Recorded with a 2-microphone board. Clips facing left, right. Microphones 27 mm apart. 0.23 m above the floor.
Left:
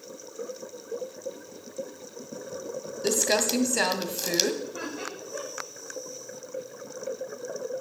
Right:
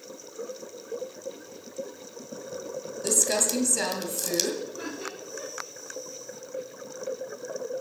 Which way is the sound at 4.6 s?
45° left (ahead or behind).